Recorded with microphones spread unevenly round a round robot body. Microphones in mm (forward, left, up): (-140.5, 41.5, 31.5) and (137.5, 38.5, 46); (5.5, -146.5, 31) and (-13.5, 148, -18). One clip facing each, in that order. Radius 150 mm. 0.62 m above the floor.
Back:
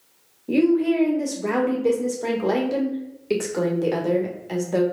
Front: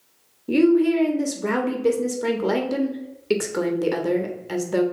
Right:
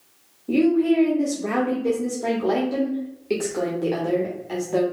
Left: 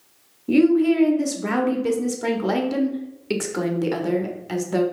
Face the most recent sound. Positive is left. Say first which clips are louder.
# front 2 dB, left 2 dB
turn(degrees=65)